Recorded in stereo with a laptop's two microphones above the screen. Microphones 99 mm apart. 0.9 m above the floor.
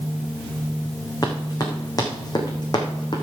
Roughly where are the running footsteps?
Left.